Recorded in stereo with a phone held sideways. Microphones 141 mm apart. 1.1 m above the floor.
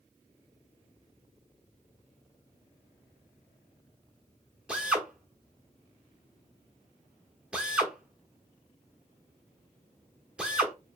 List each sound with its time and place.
4.7 s a drill: 5° right (ahead or behind), 1.0 m